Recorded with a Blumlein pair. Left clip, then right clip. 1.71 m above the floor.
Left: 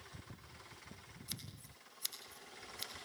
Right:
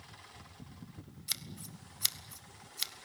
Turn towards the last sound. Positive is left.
turn(degrees=-30)